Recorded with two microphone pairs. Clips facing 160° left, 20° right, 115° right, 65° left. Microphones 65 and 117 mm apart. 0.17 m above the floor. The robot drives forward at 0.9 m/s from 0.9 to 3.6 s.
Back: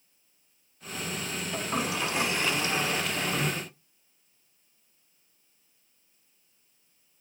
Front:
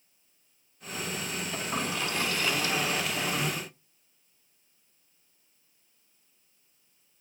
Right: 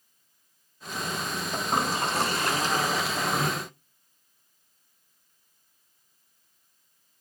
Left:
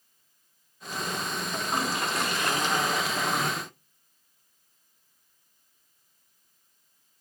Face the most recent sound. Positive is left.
turn(degrees=-165)